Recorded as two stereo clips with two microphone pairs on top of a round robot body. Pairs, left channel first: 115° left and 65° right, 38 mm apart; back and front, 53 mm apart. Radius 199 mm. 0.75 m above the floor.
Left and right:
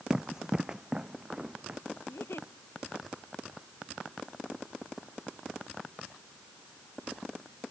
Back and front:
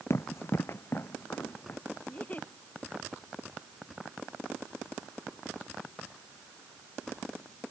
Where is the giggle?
120° left.